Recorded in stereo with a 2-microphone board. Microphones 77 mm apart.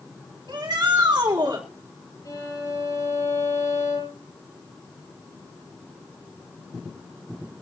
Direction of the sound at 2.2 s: 45° left (ahead or behind).